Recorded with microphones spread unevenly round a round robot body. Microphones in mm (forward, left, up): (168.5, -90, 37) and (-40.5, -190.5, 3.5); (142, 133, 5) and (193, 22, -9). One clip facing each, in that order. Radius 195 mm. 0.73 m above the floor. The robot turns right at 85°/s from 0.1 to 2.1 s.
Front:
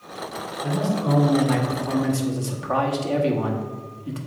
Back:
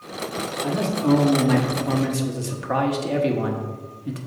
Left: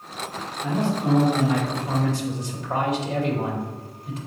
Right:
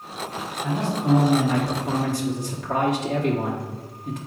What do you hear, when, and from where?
0.6 s a man speaking: 145° left, 1.3 m; by 4.2 s 90° right, 1.3 m